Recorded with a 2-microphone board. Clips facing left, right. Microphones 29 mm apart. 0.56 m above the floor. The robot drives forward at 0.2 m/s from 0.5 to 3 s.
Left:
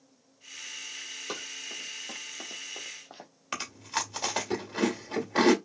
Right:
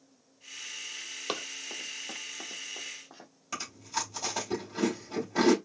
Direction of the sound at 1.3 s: 40° right (ahead or behind).